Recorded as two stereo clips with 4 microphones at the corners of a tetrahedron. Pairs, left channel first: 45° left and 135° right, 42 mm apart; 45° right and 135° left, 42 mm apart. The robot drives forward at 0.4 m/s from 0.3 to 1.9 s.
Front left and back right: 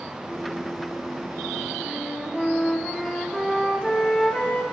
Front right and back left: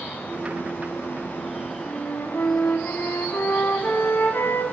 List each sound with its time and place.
1.9 s a flute: 25° right, 2.0 m